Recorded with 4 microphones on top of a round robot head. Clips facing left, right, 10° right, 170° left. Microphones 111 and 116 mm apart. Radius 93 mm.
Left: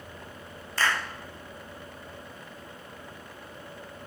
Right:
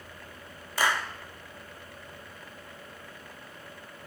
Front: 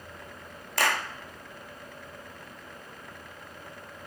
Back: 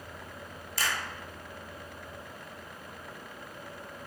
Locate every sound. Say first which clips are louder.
0.8 s a clap: right 1 dB, front 6 dB; 15° right, 0.8 m